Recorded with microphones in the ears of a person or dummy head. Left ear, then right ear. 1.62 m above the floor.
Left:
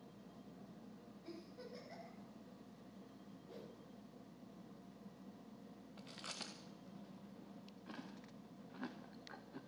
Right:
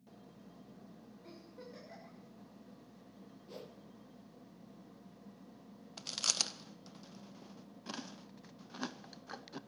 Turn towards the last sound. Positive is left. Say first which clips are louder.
# right 15 dB
turn(degrees=-85)